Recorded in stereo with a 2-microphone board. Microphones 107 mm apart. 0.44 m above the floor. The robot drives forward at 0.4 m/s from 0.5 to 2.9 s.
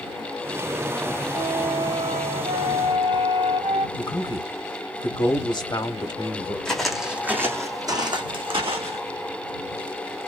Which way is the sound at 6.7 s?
5° left (ahead or behind).